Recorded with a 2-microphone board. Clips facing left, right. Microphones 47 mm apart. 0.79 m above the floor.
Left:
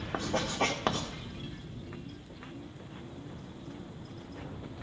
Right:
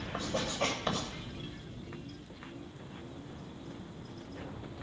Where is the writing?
50° left (ahead or behind), 1.8 m.